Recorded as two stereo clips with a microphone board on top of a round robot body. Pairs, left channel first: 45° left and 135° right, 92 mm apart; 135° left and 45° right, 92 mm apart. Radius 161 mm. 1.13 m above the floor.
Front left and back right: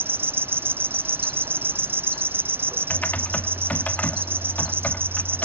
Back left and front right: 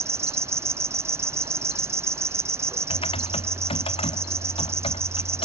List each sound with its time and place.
0.0 s an insect: 85° right
2.9 s typing on a keyboard: 120° left